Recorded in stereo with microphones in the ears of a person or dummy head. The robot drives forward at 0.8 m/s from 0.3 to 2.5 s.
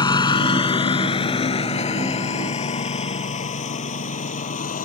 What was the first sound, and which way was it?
A lawn mower, 30° left (ahead or behind).